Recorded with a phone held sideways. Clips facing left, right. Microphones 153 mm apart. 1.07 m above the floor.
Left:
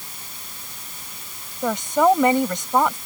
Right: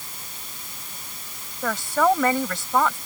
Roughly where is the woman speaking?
Centre.